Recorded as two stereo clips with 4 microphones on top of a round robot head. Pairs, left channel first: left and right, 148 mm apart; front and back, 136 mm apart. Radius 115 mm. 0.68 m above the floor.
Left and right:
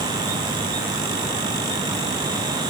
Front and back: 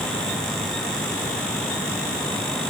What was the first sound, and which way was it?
Only background noise.